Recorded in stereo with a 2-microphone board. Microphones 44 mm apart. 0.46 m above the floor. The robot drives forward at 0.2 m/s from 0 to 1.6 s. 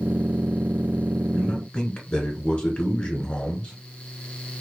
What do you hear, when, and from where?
1.3 s a man speaking: 20° left (ahead or behind), 1.0 m